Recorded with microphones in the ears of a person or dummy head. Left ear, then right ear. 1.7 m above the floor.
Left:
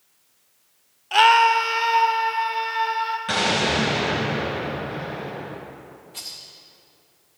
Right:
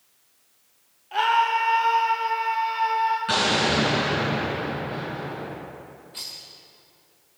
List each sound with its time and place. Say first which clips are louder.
1.1 s a scream: left 6 dB; 45° left (ahead or behind), 0.6 m; by 3.2 s 10° left (ahead or behind), 1.6 m
3.3 s an explosion: even; 5° left (ahead or behind), 2 m
6.1 s a rattle: even; centre (ahead or behind), 0.6 m